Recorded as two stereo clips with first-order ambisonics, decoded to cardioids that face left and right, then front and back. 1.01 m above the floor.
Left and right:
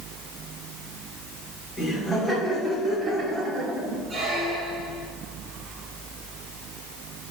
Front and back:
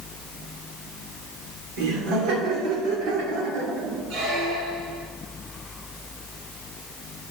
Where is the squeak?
165° right, 2 m.